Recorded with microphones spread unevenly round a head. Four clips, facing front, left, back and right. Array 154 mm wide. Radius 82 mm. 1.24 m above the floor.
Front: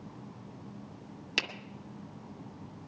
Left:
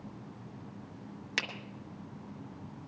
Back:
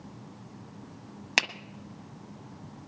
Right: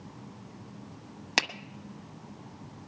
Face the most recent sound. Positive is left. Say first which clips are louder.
# right 8 dB, back 7 dB
turn(degrees=-135)